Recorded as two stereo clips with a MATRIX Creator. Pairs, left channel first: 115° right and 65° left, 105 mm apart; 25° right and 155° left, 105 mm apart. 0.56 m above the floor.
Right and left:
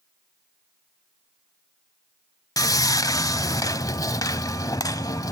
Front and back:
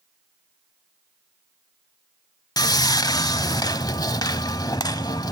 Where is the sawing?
65° right, 0.6 m.